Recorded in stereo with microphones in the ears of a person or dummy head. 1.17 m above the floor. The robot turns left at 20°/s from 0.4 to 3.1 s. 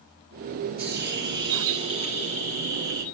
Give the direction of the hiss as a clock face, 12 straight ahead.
2 o'clock.